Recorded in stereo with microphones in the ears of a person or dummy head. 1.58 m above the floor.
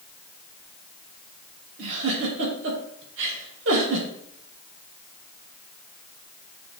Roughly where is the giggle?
Right.